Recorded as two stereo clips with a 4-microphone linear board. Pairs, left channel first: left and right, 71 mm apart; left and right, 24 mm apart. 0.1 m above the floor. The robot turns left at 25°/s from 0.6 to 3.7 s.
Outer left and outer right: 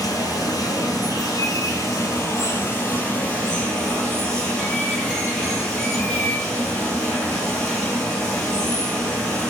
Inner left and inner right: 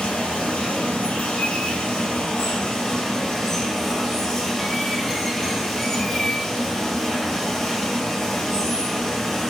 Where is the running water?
90° left, 0.7 m; by 9.5 s 15° left, 0.7 m.